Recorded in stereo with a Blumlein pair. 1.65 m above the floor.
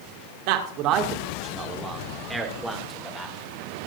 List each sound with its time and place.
0.5 s a man speaking: 45° right, 2 m; by 3.4 s 10° left, 3 m